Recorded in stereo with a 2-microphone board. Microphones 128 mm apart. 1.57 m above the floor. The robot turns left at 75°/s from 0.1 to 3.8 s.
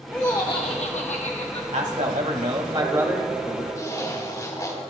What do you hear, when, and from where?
0.1 s laughter: 170° left, 0.8 m; by 1.6 s 55° left, 0.8 m
1.7 s a man speaking: 65° right, 2 m; by 3.6 s 150° left, 2 m
3.7 s a zipper: 30° left (ahead or behind), 3.5 m; by 4.8 s 25° left (ahead or behind), 3.5 m